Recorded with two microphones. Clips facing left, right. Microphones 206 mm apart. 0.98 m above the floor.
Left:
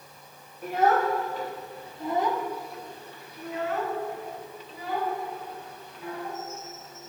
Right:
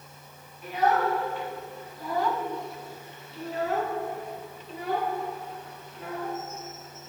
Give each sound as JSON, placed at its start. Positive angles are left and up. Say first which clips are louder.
{"t": 0.6, "sound": "a child speaking", "louder": "left 2 dB", "side_deg": 50, "distance_m": 1.4}